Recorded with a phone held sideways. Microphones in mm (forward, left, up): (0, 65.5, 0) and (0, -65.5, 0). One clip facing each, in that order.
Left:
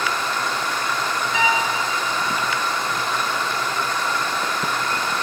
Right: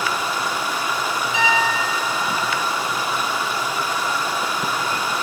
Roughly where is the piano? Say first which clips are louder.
Right 1 dB; left.